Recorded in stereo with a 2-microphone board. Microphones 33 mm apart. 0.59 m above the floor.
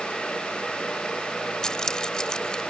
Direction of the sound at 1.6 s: 25° left (ahead or behind).